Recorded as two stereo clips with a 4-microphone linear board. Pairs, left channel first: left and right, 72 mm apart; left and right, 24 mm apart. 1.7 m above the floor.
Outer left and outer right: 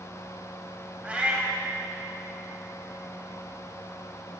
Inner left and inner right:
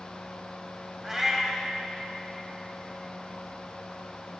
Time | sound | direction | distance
1.0 | a cat meowing | 15° right (ahead or behind) | 2 m